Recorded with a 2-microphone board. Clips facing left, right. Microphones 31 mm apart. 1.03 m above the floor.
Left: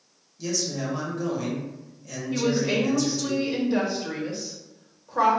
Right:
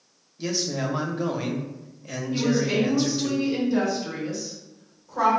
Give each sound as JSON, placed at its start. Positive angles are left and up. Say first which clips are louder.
{"t": 0.4, "sound": "a man speaking", "louder": "right 2 dB", "side_deg": -35, "distance_m": 0.7}
{"t": 2.3, "sound": "a woman speaking", "louder": "right 1 dB", "side_deg": 50, "distance_m": 1.5}